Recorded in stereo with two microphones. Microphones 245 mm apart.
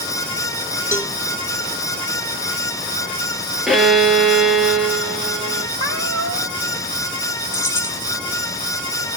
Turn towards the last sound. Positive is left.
turn(degrees=10)  # may be behind; listen again after turning